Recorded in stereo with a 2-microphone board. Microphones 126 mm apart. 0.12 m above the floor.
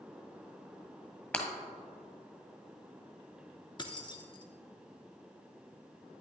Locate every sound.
1.3 s breaking glass: 10° left (ahead or behind), 1.5 m
3.8 s keys jangling: 35° left (ahead or behind), 0.9 m